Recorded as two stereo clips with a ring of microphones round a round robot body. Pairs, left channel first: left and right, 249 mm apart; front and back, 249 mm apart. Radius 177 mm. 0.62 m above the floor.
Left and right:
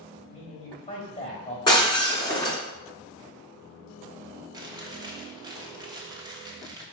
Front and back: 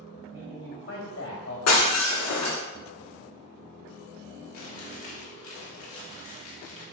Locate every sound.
0.3 s a man speaking: 35° left, 3 m
1.7 s breaking glass: 15° left, 1.9 m
4.5 s chewing: 20° right, 1.5 m